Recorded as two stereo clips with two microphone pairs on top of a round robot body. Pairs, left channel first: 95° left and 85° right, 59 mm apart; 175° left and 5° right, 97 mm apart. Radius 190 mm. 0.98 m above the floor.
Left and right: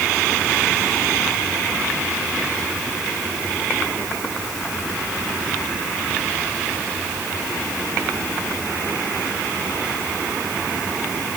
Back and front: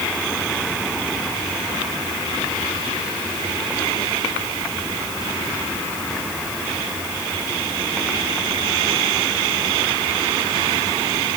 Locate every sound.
Only background noise.